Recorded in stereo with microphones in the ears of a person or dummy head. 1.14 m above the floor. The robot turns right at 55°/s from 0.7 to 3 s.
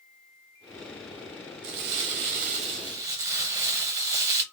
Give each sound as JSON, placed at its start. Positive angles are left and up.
{"t": 1.6, "sound": "crumpling", "azimuth_deg": -95, "distance_m": 0.6}